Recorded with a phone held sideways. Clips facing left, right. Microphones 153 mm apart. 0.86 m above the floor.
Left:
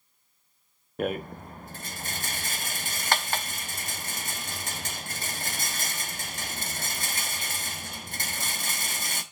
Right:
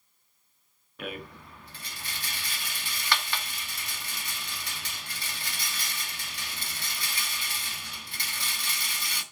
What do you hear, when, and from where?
1.0 s a rattle: 45° left (ahead or behind), 0.9 m